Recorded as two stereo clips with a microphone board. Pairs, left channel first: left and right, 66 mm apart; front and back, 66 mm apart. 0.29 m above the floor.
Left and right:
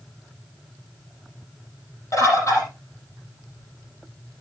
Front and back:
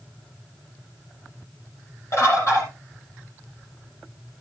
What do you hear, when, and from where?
2.1 s a bird: 45° left, 6 m